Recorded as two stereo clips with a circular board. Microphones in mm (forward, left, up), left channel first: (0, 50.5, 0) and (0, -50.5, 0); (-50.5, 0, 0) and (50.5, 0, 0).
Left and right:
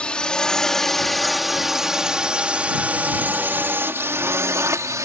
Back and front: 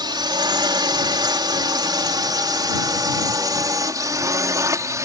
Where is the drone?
15° left; by 5.0 s 45° right.